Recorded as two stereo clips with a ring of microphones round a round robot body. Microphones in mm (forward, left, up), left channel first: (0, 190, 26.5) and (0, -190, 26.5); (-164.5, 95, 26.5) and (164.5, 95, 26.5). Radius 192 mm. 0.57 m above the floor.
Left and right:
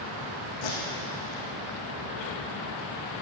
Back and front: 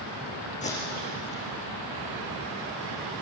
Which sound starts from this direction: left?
Tape being pulled, at 0.6 s.